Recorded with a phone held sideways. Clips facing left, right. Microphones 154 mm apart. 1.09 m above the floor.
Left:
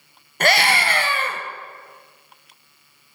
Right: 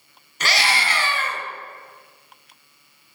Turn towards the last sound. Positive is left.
turn(degrees=55)  # may be behind; listen again after turning